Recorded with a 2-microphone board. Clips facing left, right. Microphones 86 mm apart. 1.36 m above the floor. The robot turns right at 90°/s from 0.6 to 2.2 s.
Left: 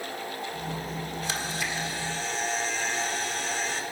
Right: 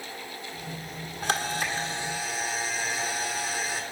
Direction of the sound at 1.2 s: 95° right.